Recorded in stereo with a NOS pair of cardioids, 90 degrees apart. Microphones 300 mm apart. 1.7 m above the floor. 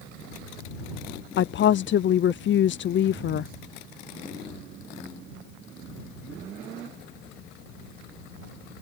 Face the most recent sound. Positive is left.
turn(degrees=40)